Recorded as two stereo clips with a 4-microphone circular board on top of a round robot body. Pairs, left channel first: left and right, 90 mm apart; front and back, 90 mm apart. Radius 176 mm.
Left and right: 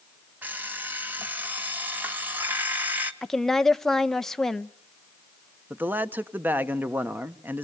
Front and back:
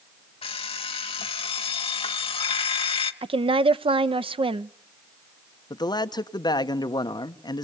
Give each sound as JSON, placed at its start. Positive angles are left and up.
{"t": 0.4, "sound": "an alarm clock", "azimuth_deg": -15, "distance_m": 0.8}
{"t": 3.2, "sound": "a woman speaking", "azimuth_deg": 175, "distance_m": 0.9}
{"t": 5.7, "sound": "a man speaking", "azimuth_deg": -25, "distance_m": 1.5}